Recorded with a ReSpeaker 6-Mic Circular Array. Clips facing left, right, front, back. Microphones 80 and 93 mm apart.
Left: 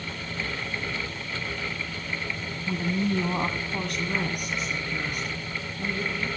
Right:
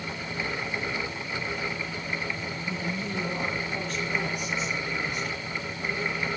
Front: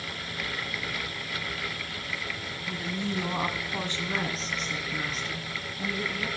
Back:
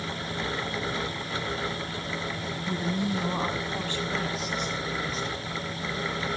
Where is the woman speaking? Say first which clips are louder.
Left 7 dB, back 4 dB; 120° left, 2 m; by 6.3 s 40° left, 6 m.